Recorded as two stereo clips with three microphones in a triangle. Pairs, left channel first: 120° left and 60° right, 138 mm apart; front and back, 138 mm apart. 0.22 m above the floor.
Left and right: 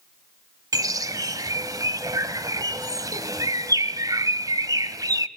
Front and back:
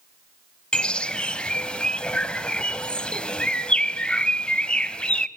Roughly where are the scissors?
No scissors in this recording.